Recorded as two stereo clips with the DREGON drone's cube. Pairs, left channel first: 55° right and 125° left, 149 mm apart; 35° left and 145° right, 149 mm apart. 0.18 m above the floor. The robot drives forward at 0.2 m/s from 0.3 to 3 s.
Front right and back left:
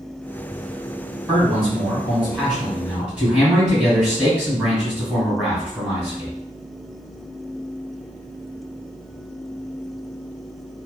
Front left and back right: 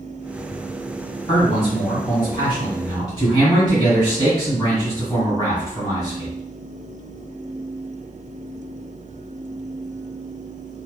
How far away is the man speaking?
About 1.9 m.